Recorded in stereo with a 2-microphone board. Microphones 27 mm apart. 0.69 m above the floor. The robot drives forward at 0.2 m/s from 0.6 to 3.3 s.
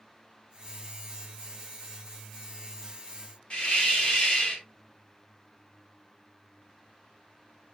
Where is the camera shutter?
No camera shutter in this recording.